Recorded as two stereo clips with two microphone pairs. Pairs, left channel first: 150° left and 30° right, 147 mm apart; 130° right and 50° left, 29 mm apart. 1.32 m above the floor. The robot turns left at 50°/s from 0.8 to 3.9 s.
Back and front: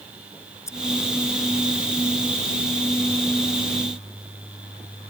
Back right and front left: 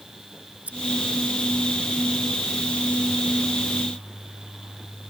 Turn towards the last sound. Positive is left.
turn(degrees=-75)